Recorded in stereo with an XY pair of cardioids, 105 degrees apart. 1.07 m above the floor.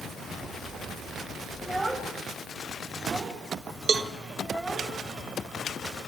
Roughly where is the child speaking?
Ahead.